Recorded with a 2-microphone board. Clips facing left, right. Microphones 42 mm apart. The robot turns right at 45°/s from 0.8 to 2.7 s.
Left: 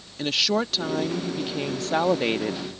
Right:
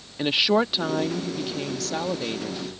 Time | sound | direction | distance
0.2 | a woman speaking | 20° right | ?